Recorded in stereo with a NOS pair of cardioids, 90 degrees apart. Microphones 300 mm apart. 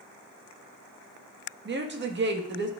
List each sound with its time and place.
1.6 s a woman speaking: 35° right, 1.5 m